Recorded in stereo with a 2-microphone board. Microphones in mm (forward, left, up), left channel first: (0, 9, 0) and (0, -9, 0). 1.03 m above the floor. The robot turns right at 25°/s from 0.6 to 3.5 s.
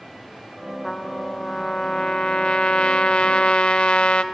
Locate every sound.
0.8 s a trumpet: 30° left, 1.2 m; by 4.2 s 95° left, 1.2 m